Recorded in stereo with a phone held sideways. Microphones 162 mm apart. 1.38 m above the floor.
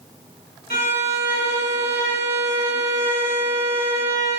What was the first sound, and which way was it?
A violin, 70° left (ahead or behind).